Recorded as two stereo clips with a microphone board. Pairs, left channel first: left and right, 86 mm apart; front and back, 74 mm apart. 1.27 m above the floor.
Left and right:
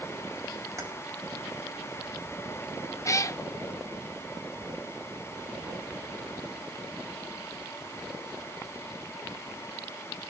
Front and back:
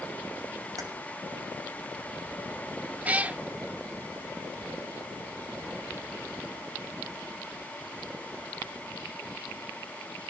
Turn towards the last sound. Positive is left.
turn(degrees=120)